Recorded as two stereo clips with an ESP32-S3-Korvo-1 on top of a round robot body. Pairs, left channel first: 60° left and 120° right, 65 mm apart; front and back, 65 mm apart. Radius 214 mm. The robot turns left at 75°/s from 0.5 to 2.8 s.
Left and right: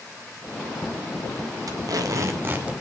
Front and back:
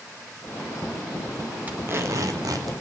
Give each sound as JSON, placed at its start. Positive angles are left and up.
{"t": 1.7, "sound": "tape being pulled", "azimuth_deg": -115, "distance_m": 2.0}